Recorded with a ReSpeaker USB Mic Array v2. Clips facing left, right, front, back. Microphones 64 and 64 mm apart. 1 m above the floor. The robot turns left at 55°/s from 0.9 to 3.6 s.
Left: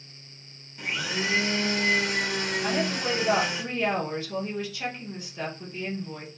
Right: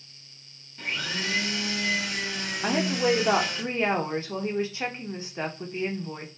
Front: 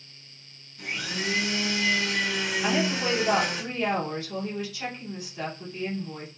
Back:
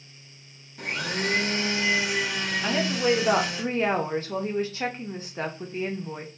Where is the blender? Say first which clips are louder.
Left 2 dB, back 3 dB; 170° left, 0.6 m; by 3.6 s 25° left, 0.6 m.